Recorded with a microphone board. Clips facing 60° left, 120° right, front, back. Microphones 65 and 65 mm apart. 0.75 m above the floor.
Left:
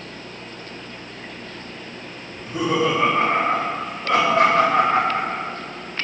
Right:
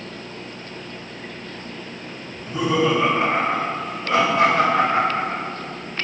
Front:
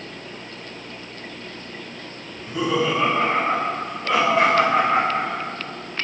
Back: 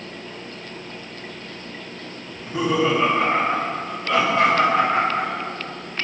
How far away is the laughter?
About 1.8 m.